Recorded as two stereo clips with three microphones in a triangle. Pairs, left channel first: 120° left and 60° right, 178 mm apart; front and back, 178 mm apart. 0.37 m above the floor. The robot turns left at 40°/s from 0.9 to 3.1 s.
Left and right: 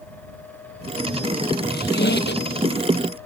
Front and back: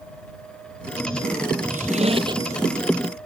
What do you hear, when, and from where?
1.7 s a squeak: 140° left; by 2.6 s 105° left